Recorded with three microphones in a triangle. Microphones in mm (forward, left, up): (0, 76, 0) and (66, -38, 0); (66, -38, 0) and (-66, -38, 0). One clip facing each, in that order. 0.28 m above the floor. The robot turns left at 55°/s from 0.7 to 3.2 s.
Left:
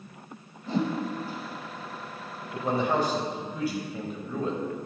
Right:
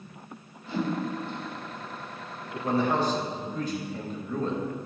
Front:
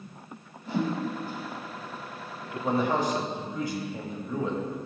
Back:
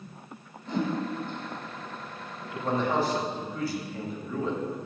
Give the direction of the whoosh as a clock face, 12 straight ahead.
9 o'clock.